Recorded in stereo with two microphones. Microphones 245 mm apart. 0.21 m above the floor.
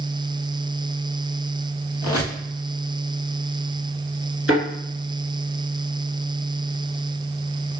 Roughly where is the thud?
Left.